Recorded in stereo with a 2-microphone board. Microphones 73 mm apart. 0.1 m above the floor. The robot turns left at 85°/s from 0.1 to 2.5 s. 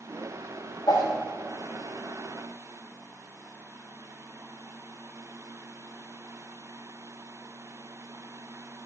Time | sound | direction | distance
0.9 | a whoosh | 50° left (ahead or behind) | 5.5 m